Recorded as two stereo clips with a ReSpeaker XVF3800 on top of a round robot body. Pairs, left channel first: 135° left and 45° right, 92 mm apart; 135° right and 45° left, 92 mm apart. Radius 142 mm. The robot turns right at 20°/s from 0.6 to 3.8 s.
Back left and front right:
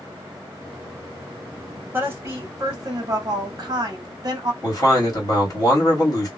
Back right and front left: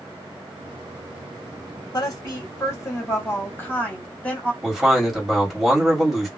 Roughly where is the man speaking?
Behind left.